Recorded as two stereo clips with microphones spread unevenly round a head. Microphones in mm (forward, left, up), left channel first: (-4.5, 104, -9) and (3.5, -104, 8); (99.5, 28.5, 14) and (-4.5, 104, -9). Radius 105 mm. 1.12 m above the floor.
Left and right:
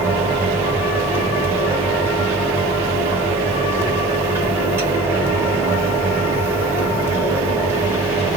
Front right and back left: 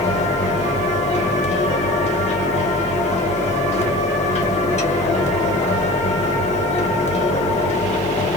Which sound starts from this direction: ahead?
A fan, at 0.0 s.